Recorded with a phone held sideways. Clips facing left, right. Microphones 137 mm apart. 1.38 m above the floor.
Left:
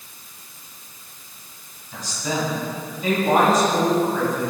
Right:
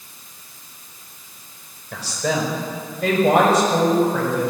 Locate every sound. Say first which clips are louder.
1.9 s a woman speaking: right 4 dB; 85° right, 5 m; by 4.5 s 65° right (ahead or behind), 6.5 m